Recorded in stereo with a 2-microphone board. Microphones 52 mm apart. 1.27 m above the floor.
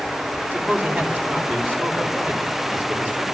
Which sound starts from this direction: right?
A man speaking, at 0.5 s.